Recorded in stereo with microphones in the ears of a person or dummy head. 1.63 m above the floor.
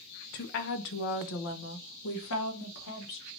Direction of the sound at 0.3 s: 40° left (ahead or behind).